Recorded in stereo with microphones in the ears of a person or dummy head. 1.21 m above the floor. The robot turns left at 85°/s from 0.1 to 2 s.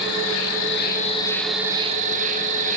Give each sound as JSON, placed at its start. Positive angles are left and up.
{"t": 0.0, "sound": "an insect", "azimuth_deg": 120, "distance_m": 1.3}